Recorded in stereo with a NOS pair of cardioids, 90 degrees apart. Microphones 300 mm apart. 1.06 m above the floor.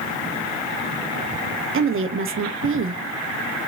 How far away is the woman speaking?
About 1.2 m.